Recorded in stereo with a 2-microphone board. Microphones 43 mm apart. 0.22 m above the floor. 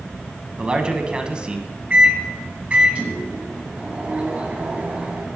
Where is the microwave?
30° right (ahead or behind), 1.7 m.